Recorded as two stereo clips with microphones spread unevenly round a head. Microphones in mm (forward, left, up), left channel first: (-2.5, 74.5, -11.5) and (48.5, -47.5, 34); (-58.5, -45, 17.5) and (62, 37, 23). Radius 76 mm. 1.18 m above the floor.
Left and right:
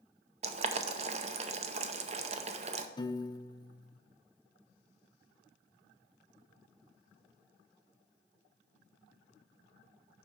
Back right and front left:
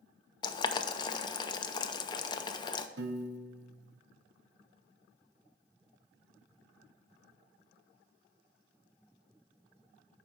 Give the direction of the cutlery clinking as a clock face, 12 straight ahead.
No cutlery clinking in this recording.